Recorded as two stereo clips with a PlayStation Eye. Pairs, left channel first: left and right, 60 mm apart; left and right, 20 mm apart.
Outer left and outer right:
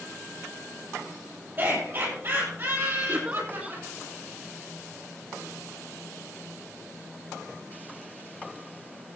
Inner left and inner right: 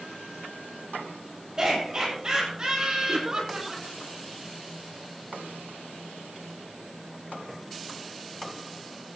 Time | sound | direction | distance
1.6 | laughter | 35° right (ahead or behind) | 8.5 m
3.1 | a giggle | 20° right (ahead or behind) | 1.2 m